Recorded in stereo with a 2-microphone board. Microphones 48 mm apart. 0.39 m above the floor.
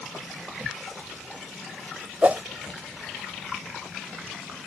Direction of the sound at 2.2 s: 30° right (ahead or behind).